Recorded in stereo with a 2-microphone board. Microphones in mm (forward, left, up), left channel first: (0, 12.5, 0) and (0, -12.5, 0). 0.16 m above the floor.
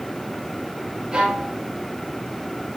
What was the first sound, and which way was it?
A violin, 20° right (ahead or behind).